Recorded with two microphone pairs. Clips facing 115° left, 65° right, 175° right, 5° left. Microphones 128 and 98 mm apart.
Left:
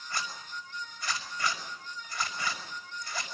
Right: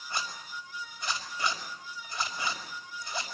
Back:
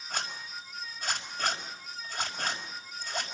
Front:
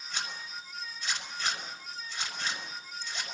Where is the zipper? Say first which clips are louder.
Right 1 dB, back 2 dB; 135° right, 5.5 m.